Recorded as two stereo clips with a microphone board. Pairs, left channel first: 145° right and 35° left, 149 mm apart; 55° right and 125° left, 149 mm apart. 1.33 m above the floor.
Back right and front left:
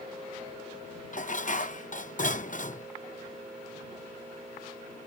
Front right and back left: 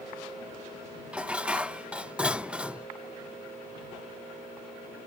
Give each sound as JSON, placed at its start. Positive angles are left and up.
{"t": 1.1, "sound": "dishes clattering", "azimuth_deg": -155}